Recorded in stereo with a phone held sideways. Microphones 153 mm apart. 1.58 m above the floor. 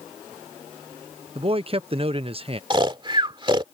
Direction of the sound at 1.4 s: 40° right (ahead or behind).